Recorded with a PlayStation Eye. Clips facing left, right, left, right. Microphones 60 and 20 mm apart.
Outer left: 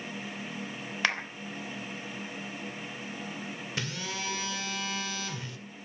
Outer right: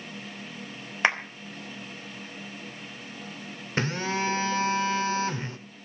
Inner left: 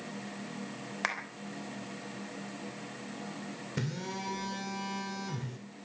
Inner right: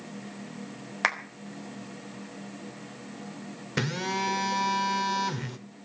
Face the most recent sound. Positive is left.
turn(degrees=-40)  # may be behind; listen again after turning